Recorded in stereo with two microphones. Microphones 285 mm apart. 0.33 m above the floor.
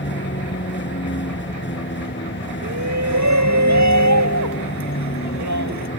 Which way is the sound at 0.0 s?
40° left (ahead or behind).